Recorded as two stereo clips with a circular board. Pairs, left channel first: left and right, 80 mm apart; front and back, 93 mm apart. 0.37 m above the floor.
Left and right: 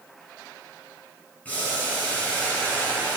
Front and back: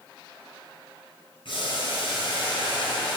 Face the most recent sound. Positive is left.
turn(degrees=20)